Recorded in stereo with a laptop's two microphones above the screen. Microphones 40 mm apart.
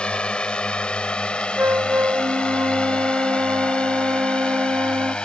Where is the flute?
75° right (ahead or behind).